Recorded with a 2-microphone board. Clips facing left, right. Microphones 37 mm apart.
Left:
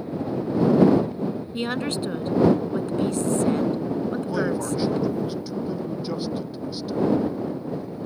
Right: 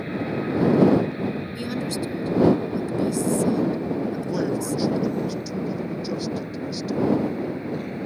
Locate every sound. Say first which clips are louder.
0.0 s an aircraft: right 1 dB; 65° right (ahead or behind); by 8.1 s 60° right (ahead or behind)
1.6 s a woman speaking: left 1 dB; 45° left (ahead or behind)
4.2 s a man speaking: even; 15° left (ahead or behind)